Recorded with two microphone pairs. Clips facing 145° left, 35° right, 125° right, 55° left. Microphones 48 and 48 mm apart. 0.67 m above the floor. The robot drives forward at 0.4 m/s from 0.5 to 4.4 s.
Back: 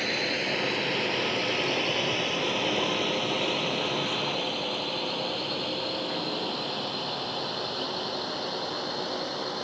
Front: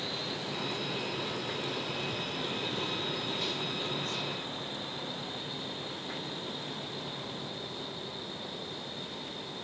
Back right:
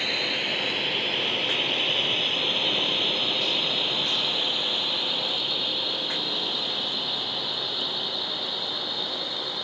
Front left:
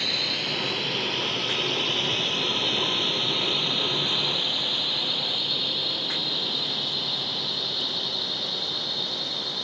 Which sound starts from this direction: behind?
A drone, at 0.0 s.